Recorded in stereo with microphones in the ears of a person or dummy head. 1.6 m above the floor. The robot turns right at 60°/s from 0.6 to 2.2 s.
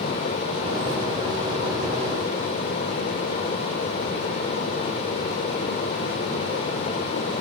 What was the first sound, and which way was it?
Only background noise.